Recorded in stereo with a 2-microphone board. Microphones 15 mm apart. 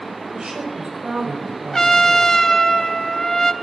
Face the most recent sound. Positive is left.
turn(degrees=45)  # may be behind; listen again after turning